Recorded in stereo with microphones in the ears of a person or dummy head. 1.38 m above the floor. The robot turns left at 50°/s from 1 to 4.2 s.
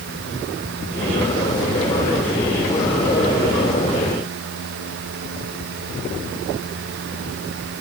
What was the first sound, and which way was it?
Only background noise.